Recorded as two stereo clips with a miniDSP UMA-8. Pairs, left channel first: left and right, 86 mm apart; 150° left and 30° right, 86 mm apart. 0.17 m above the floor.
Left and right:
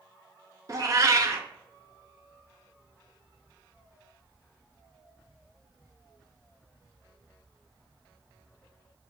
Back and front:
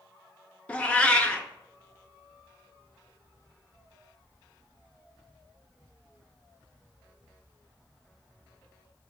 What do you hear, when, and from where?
0.7 s a cat meowing: 135° right, 0.5 m